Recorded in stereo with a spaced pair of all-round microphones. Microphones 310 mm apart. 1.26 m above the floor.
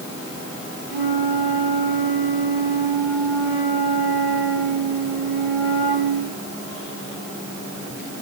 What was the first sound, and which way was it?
A flute, 30° left (ahead or behind).